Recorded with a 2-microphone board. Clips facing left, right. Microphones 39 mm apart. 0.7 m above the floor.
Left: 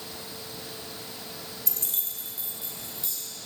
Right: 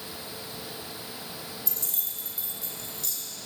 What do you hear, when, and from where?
1.7 s keys jangling: 55° left (ahead or behind), 1.4 m; by 3.2 s 20° left (ahead or behind), 2.5 m